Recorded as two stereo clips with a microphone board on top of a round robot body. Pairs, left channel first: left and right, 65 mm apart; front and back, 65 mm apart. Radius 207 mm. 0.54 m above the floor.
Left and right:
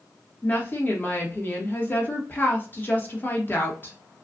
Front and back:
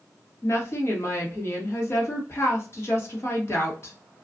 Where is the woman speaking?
35° left, 1.3 m.